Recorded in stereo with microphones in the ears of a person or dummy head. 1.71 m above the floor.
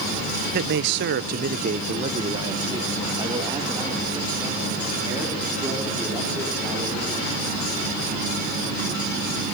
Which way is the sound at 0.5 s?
50° right (ahead or behind).